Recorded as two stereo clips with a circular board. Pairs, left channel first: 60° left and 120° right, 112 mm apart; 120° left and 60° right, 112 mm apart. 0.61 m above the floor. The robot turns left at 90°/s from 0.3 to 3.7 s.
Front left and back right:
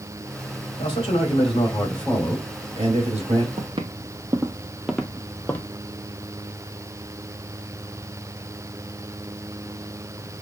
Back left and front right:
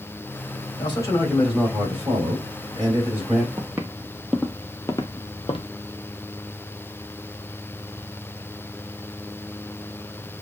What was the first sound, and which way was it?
A man speaking, 85° left.